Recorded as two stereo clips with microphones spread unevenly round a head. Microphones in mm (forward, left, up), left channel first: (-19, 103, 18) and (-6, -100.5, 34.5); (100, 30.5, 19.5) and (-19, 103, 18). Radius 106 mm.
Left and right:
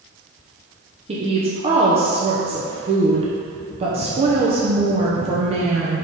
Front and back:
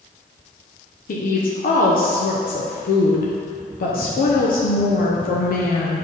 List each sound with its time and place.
1.1 s a woman speaking: 25° right, 0.9 m